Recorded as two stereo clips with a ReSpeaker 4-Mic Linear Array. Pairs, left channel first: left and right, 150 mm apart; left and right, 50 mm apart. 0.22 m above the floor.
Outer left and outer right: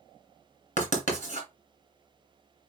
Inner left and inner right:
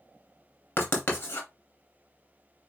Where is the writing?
50° left (ahead or behind), 2 m.